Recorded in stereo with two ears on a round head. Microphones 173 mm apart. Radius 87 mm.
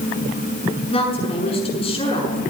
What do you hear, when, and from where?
0.9 s a woman speaking: 30° left (ahead or behind), 7.5 m